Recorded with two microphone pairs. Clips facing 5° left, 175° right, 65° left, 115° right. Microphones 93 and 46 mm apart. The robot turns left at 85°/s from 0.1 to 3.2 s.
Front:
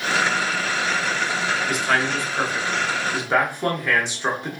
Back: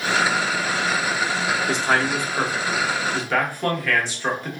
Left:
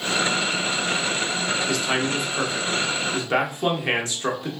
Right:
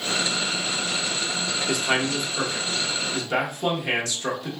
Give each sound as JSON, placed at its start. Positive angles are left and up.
{"t": 1.7, "sound": "a man speaking", "azimuth_deg": -175, "distance_m": 0.8}